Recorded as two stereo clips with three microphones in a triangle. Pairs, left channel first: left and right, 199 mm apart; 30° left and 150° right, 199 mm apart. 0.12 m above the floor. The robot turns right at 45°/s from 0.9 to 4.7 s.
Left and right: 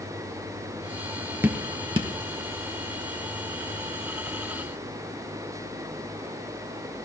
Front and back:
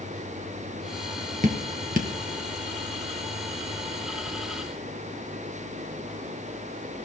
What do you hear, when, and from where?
1.4 s dripping: 165° right, 1.7 m; by 2.1 s 135° right, 1.7 m